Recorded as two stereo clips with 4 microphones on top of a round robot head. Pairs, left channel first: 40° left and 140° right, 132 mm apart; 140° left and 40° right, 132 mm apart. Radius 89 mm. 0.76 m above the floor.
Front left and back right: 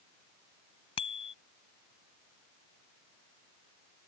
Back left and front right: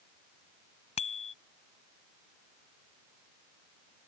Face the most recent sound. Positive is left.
turn(degrees=95)